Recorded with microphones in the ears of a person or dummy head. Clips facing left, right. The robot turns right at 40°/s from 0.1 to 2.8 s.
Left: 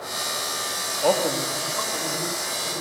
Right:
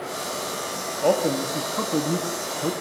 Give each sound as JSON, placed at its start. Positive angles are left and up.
{"t": 1.0, "sound": "a man speaking", "azimuth_deg": 180, "distance_m": 2.0}